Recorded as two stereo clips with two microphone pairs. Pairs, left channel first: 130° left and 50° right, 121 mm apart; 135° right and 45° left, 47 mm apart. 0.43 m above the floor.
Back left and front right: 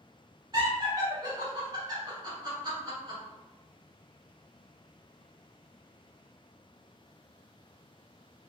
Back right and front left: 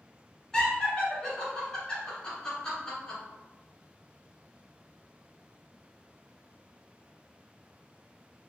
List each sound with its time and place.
0.5 s laughter: 70° right, 1.4 m